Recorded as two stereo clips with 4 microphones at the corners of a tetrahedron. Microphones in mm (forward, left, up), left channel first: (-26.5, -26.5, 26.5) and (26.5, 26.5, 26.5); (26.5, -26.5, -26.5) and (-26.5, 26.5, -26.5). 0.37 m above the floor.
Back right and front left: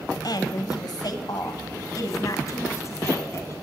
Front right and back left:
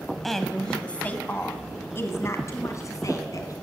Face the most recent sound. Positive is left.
turn(degrees=-85)